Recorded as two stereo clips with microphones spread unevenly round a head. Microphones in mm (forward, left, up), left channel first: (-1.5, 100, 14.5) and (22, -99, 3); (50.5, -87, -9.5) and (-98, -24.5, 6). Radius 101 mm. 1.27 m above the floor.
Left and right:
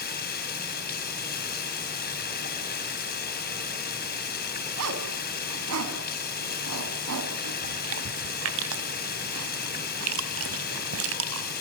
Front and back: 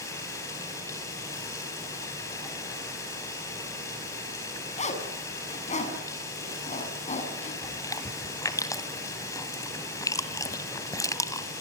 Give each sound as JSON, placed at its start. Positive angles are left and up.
{"t": 0.0, "sound": "running water", "azimuth_deg": 55, "distance_m": 4.0}
{"t": 4.8, "sound": "a zipper", "azimuth_deg": -70, "distance_m": 5.0}
{"t": 7.6, "sound": "chewing", "azimuth_deg": -95, "distance_m": 2.0}